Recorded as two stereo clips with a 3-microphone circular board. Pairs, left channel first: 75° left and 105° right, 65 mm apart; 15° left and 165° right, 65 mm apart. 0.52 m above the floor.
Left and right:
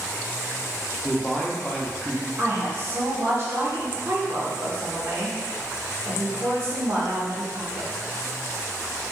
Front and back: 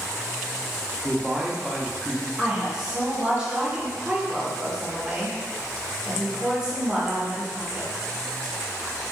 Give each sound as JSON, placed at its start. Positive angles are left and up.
{"t": 1.0, "sound": "a man speaking", "azimuth_deg": 125, "distance_m": 0.7}
{"t": 2.4, "sound": "a woman speaking", "azimuth_deg": -95, "distance_m": 1.4}